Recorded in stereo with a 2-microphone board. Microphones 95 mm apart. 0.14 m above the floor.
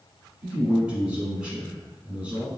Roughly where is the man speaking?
Centre.